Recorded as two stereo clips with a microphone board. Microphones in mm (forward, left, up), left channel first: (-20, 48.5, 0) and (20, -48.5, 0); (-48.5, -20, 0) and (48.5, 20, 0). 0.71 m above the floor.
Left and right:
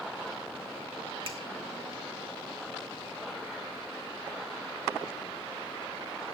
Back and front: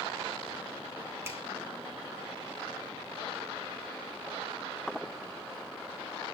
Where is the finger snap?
40° right, 1.9 m.